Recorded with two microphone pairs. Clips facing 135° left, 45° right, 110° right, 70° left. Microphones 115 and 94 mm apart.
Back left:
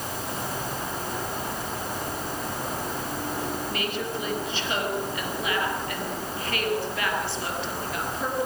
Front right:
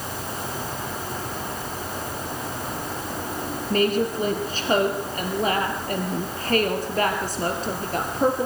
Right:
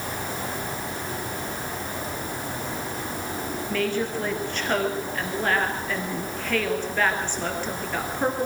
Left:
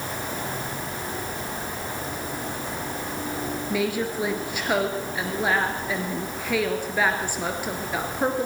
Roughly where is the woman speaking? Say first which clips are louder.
Front right 8 dB, even; ahead.